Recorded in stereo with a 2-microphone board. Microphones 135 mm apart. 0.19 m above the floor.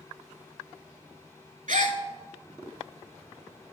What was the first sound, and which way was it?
A gasp, 75° right (ahead or behind).